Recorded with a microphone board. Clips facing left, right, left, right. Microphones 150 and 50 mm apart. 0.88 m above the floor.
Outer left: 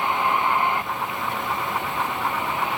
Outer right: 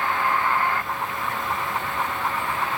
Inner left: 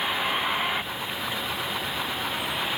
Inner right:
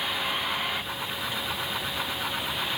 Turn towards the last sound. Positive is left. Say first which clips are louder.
# outer left 1 dB, inner left 3 dB
turn(degrees=20)  # may be behind; listen again after turning